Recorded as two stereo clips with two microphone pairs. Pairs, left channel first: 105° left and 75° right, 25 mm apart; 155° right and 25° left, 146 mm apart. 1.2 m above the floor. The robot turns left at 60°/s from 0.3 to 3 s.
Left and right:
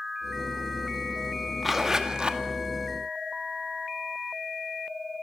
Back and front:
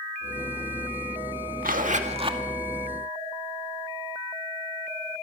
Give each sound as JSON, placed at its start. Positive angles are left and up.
{"t": 1.6, "sound": "a zipper", "azimuth_deg": 10, "distance_m": 2.0}